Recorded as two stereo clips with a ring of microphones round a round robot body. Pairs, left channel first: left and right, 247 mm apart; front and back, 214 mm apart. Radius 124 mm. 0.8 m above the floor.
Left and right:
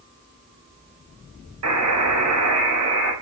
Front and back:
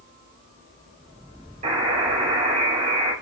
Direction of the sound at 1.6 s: 115° right.